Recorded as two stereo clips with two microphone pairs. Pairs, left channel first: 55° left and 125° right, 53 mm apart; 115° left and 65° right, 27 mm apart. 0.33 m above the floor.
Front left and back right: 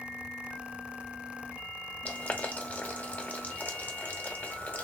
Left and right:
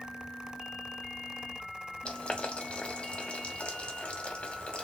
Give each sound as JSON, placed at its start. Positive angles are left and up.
{"t": 2.0, "sound": "boiling", "azimuth_deg": 100, "distance_m": 0.9}